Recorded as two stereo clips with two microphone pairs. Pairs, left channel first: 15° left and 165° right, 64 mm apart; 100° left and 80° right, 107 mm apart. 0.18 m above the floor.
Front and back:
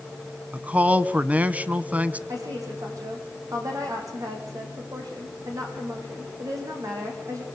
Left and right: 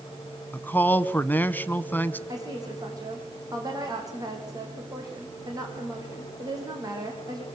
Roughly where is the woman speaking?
Behind right.